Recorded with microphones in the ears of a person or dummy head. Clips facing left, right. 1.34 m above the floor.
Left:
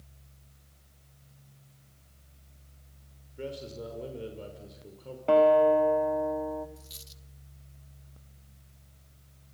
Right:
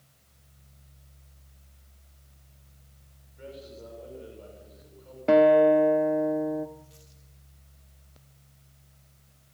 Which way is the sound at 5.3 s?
30° right (ahead or behind).